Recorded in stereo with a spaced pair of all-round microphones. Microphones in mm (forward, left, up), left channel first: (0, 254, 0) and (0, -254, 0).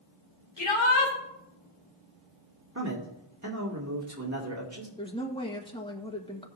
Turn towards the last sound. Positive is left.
turn(degrees=10)  # may be behind; listen again after turning